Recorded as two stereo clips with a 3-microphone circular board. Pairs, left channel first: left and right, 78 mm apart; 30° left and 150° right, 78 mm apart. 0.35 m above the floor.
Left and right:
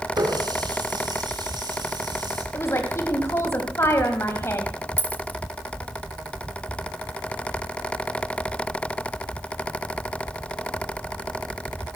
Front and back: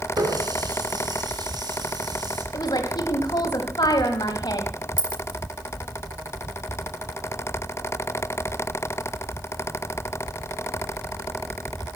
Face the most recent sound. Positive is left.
turn(degrees=20)